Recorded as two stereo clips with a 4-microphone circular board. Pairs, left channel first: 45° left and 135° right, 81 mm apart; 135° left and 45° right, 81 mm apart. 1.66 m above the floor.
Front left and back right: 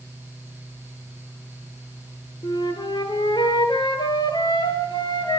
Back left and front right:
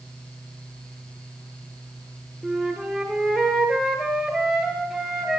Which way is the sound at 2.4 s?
40° left.